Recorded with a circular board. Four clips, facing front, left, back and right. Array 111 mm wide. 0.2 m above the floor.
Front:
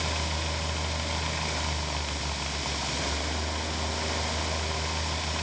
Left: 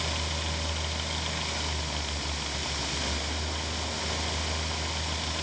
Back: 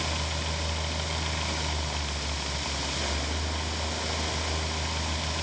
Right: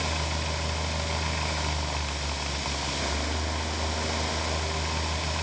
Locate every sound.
Only background noise.